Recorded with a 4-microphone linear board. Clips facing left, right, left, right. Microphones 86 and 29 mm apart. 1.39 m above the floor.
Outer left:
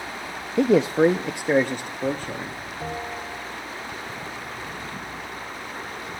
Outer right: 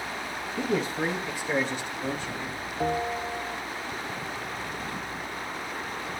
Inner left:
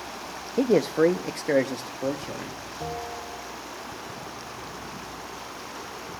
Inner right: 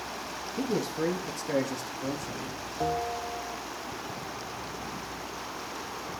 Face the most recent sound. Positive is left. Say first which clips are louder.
# outer right 5 dB, inner right 5 dB
turn(degrees=-50)  # may be behind; listen again after turning